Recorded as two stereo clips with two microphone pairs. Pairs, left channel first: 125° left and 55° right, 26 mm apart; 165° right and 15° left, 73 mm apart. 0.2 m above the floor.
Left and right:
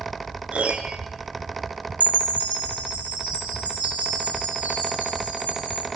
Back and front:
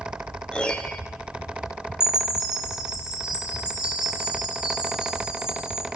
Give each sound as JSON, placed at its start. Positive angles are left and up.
{"t": 0.5, "sound": "a piano", "azimuth_deg": -85, "distance_m": 0.7}
{"t": 2.0, "sound": "a chime", "azimuth_deg": -60, "distance_m": 1.8}